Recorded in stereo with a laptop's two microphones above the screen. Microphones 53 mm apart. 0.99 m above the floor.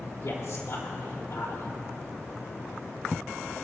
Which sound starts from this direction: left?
A man speaking, at 0.2 s.